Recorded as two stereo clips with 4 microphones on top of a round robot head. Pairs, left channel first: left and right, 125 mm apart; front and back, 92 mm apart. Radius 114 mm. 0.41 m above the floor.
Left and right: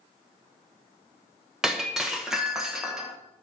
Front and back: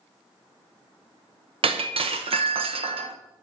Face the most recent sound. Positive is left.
turn(degrees=-175)